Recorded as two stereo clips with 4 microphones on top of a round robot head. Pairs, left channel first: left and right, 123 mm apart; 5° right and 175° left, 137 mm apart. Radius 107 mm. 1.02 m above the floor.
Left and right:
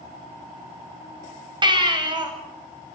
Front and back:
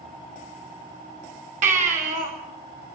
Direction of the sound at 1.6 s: 140° right.